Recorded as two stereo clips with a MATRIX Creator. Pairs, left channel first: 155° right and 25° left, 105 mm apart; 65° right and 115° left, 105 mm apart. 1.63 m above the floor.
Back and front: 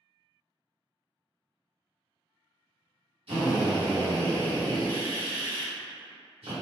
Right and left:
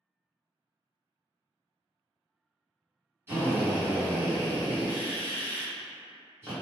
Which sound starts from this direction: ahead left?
A drill, at 3.3 s.